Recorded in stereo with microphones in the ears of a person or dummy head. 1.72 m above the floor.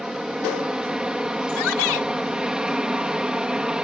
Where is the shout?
80° left.